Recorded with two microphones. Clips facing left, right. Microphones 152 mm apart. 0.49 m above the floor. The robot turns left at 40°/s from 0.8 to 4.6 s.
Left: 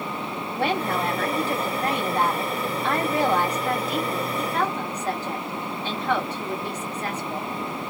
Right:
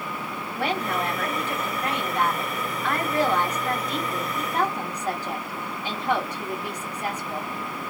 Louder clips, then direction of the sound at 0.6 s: Left 2 dB; 130° left.